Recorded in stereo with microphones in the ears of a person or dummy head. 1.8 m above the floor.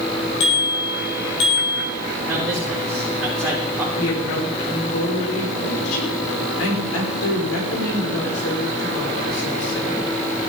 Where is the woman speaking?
85° left, 6 m.